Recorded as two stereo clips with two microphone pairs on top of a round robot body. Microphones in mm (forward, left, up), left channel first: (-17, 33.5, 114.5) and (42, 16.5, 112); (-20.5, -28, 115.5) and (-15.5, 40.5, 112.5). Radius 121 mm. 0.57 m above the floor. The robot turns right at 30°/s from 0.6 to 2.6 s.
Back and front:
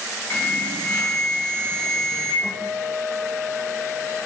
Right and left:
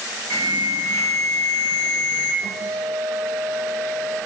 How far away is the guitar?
About 0.8 m.